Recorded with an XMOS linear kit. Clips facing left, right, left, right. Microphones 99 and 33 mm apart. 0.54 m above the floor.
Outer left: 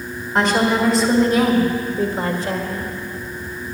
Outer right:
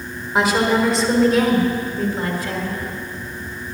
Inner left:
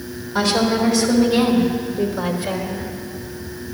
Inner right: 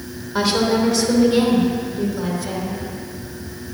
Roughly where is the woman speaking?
Centre.